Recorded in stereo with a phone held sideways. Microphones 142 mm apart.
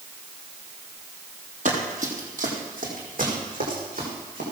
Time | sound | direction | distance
1.6 | running footsteps | 60° right (ahead or behind) | 3 m